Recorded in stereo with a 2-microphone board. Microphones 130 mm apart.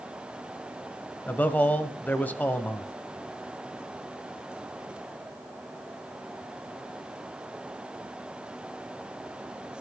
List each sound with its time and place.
1.3 s a man speaking: 10° left (ahead or behind), 1.0 m